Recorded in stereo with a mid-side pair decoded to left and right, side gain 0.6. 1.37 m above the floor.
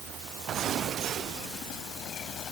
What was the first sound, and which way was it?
Only background noise.